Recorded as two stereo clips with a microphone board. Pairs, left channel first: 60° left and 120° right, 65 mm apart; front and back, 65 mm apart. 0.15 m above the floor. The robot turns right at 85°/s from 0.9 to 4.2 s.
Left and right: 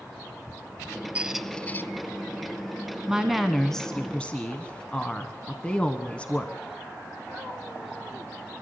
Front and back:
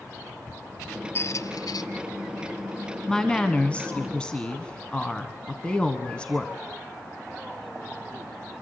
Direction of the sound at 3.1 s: 60° right.